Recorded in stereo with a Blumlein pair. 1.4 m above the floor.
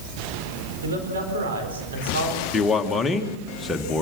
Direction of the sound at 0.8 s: 65° right.